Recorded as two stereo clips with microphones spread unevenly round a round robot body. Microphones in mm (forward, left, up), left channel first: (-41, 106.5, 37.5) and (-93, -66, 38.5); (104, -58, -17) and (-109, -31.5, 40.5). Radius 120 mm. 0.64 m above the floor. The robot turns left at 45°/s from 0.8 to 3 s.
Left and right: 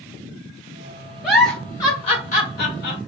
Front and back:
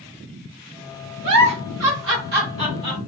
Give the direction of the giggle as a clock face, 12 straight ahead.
6 o'clock.